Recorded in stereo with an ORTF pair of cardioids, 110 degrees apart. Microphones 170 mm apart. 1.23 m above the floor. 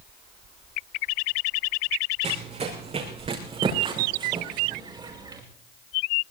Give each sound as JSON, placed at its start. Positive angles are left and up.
{"t": 2.2, "sound": "running footsteps", "azimuth_deg": -40, "distance_m": 6.0}